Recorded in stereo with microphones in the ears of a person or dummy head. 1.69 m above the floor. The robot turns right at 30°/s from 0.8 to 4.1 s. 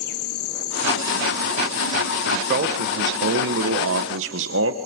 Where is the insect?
125° left, 1.4 m; by 4.9 s 135° right, 1.4 m.